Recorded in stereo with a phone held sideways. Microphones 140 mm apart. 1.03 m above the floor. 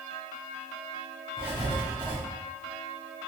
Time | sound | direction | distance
1.4 | writing | 35° right (ahead or behind) | 0.9 m